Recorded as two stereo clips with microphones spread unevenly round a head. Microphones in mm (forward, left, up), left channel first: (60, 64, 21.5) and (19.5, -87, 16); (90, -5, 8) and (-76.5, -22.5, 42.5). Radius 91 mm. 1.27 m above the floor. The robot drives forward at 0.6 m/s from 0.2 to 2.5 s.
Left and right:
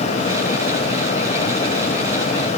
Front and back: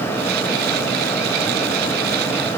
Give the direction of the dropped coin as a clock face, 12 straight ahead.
No dropped coin in this recording.